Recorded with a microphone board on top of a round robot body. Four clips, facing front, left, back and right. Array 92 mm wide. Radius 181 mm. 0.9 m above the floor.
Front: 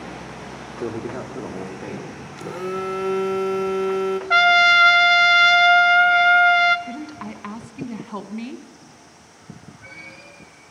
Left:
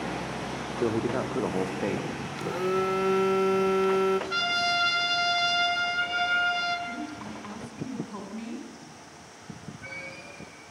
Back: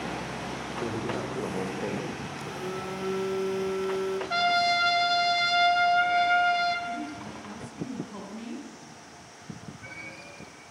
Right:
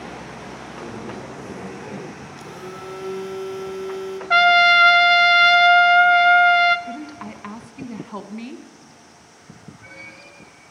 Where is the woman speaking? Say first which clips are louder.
Right 3 dB, front 3 dB; 35° right, 1.3 m.